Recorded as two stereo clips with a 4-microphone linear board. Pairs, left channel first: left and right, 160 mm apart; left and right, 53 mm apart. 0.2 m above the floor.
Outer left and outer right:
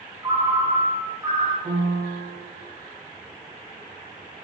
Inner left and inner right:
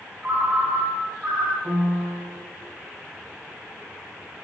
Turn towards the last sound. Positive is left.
turn(degrees=-30)  # may be behind; listen again after turning